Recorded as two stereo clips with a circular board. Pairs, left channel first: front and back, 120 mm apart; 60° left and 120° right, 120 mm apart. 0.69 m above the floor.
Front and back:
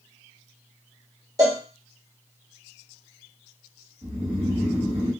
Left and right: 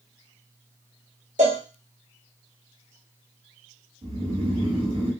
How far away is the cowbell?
About 0.9 m.